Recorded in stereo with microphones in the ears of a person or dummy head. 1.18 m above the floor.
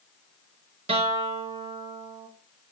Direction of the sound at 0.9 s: 30° right (ahead or behind).